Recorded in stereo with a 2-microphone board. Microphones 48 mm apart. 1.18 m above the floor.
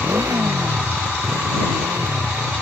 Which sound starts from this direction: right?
A motorcycle, at 0.0 s.